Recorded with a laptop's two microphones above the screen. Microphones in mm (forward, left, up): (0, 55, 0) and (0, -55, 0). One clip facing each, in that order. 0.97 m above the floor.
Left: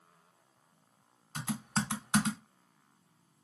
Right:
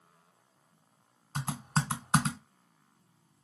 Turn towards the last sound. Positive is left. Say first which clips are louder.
# right 1 dB
turn(degrees=-45)  # may be behind; listen again after turning